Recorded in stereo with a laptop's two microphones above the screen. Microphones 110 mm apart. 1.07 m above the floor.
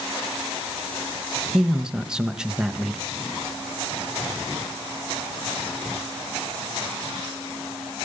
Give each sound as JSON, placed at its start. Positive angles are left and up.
{"t": 1.5, "sound": "a man speaking", "side_deg": -5, "distance_m": 1.1}